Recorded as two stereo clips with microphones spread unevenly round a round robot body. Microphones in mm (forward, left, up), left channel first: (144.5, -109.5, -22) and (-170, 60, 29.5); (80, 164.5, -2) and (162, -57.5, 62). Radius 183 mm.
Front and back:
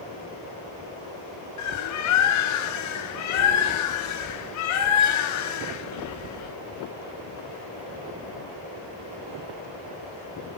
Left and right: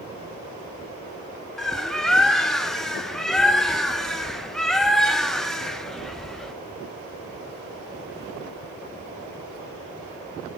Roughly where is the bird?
Ahead.